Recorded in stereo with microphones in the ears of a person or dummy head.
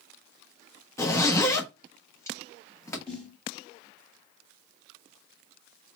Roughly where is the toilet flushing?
No toilet flushing in this recording.